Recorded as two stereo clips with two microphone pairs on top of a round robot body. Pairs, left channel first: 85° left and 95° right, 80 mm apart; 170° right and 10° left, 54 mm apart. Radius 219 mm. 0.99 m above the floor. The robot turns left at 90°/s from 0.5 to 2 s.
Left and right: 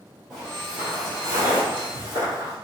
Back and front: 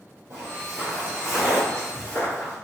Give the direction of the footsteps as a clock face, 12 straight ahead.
12 o'clock.